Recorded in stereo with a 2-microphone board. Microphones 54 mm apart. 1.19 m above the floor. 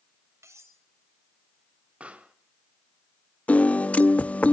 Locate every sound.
0.4 s cutlery clinking: 80° right, 3.5 m
2.0 s a pop: 25° right (ahead or behind), 2.0 m
3.5 s a piano: 30° left (ahead or behind), 0.6 m